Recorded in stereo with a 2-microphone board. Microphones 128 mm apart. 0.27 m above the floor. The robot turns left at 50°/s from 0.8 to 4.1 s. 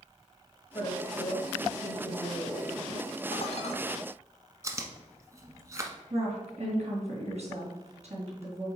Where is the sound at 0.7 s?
110° left, 1.7 m; by 3.2 s 10° right, 1.7 m.